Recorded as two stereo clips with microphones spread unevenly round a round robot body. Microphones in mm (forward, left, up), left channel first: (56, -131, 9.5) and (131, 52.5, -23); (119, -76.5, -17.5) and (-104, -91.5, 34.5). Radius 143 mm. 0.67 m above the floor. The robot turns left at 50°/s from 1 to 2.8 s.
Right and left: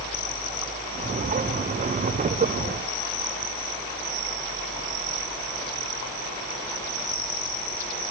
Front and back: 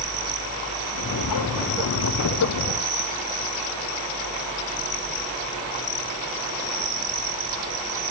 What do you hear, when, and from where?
Only background noise.